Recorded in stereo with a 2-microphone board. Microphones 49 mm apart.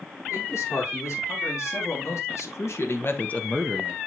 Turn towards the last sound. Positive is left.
turn(degrees=-30)  # may be behind; listen again after turning